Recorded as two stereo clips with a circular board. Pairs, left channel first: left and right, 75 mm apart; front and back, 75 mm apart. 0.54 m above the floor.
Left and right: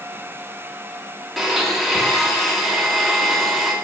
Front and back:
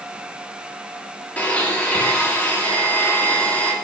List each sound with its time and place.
1.4 s a blender: straight ahead, 0.6 m